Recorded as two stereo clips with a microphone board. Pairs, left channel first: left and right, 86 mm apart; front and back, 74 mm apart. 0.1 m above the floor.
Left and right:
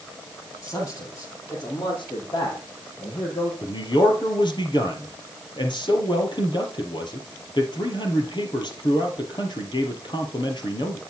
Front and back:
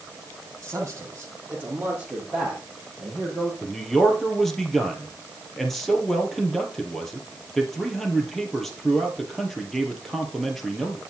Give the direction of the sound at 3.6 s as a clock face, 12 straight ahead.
9 o'clock.